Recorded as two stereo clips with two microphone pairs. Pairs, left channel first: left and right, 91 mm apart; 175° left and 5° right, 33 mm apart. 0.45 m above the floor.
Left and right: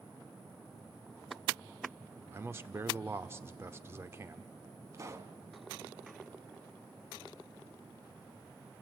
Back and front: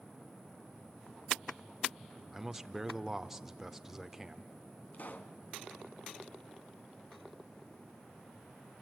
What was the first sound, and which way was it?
A man speaking, 80° right.